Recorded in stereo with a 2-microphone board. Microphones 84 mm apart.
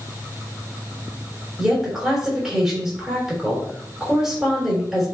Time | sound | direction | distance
1.6 | a woman speaking | 5° right (ahead or behind) | 3.5 m